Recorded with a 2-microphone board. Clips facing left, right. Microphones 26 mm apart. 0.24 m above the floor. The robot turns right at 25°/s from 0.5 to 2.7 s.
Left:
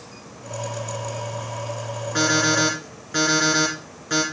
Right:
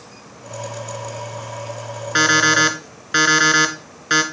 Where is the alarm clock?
70° right (ahead or behind), 1.8 m.